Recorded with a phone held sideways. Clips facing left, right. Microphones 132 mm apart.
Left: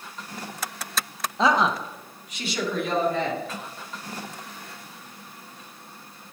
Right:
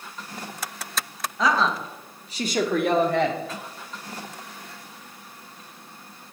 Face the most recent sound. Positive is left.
turn(degrees=-75)  # may be behind; listen again after turning